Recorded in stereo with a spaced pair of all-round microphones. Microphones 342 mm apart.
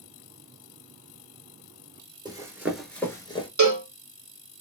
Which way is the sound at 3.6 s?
55° right (ahead or behind).